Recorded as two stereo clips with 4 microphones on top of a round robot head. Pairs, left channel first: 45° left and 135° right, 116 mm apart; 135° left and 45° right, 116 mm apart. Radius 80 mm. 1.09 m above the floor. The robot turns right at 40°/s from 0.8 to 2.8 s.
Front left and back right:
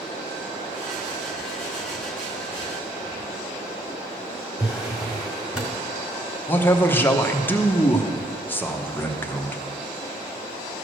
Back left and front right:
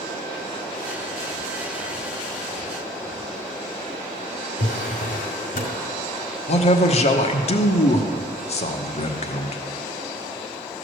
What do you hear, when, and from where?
4.6 s a drawer: 145° left, 1.8 m
6.5 s a man speaking: 120° left, 1.0 m